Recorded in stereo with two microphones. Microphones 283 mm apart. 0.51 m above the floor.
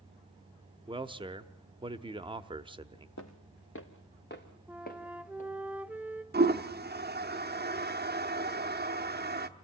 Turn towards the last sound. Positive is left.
turn(degrees=-35)  # may be behind; listen again after turning